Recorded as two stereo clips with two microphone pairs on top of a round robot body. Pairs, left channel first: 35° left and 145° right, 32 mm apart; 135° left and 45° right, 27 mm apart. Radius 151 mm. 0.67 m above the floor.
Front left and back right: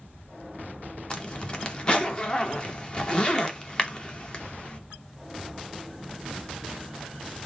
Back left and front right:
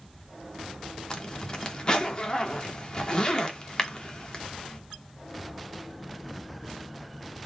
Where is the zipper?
90° left, 1.1 m.